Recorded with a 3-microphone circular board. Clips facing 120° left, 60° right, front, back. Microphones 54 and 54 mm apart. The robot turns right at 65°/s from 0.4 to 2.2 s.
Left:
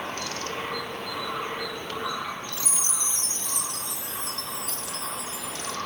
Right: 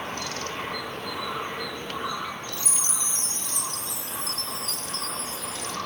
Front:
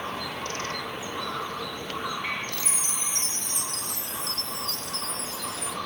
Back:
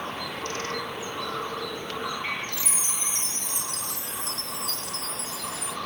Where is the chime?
40° left, 1.1 m.